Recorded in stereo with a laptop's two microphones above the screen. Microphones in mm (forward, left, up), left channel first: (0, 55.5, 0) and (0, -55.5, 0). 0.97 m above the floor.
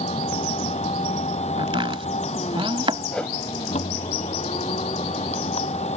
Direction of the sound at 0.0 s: 80° left.